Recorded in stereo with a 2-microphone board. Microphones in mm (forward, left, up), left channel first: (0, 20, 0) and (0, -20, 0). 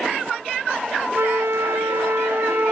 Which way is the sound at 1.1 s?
75° right (ahead or behind).